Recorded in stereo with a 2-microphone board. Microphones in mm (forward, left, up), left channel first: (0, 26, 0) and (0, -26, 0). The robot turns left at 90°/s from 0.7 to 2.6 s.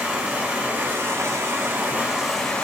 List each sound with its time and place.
0.0 s running water: 35° right, 0.9 m; by 2.6 s 155° left, 0.9 m